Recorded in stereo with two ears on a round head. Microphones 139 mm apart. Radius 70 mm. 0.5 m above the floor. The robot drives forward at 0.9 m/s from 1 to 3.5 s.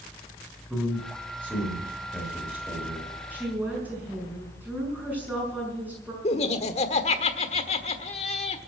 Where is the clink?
No clink in this recording.